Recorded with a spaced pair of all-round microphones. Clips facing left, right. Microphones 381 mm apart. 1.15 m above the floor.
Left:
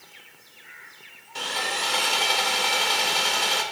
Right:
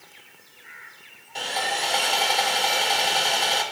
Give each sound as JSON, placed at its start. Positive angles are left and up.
{"t": 1.4, "sound": "sawing", "side_deg": 15, "distance_m": 2.0}